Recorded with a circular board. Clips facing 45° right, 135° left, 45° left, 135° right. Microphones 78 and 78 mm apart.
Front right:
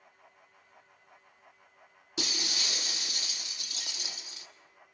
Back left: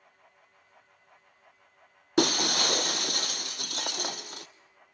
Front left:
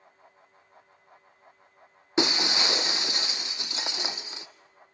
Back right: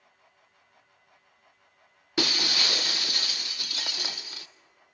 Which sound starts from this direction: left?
Breaking glass, at 2.2 s.